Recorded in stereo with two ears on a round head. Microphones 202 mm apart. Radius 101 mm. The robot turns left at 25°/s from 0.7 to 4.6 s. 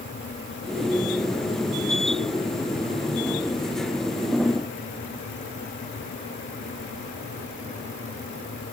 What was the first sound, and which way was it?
Only background noise.